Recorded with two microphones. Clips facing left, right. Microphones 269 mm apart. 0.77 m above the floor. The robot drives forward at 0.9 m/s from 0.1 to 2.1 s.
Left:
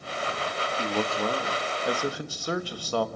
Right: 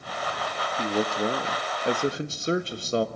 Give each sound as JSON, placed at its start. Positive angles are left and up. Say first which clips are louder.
{"t": 0.8, "sound": "a man speaking", "louder": "right 3 dB", "side_deg": -15, "distance_m": 1.5}